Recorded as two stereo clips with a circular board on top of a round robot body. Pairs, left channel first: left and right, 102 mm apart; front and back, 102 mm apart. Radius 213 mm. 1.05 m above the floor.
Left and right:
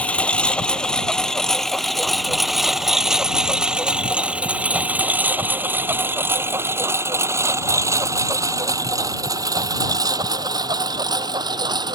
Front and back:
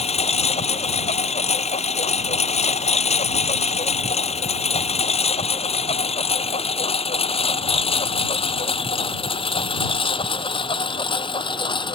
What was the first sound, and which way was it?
A lawn mower, 10° left.